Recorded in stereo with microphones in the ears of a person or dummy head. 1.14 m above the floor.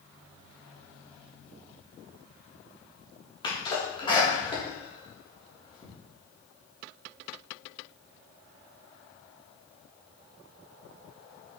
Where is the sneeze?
30° left (ahead or behind), 3 m.